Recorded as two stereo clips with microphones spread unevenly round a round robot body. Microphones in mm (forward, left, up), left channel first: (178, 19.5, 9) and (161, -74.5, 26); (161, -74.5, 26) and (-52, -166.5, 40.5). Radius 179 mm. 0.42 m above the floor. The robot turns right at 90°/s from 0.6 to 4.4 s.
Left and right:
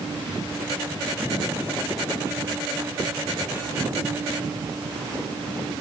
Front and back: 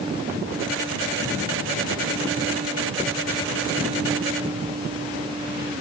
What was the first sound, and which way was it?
Only background noise.